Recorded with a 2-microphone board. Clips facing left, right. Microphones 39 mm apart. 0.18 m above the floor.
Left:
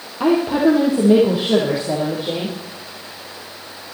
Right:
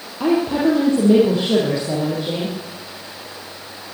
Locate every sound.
0.2 s a woman speaking: 15° left (ahead or behind), 4 m; by 2.6 s 10° left (ahead or behind), 5.5 m